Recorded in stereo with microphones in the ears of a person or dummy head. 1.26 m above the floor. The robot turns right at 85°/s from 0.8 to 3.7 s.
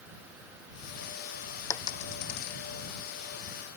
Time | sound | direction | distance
1.7 | a dropped coin | 15° left (ahead or behind) | ?